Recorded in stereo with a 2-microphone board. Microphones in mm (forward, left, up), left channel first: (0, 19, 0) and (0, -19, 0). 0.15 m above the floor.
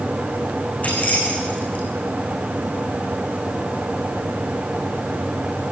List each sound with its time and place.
0.8 s keys jangling: 40° left (ahead or behind), 7 m